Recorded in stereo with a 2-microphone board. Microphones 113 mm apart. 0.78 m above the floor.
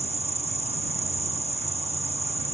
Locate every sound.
0.0 s an insect: 65° right (ahead or behind)